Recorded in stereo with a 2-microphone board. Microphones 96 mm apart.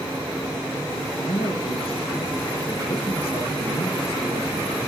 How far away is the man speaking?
About 4.5 m.